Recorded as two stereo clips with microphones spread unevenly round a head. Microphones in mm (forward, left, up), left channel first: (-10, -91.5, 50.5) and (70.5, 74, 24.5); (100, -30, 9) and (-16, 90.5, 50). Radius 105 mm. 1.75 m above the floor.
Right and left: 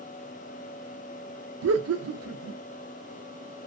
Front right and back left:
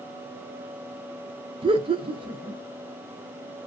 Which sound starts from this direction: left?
Laughter, at 1.6 s.